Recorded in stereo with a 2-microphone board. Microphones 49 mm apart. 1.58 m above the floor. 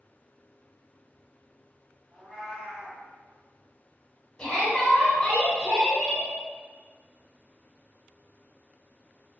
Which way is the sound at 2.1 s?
20° right (ahead or behind).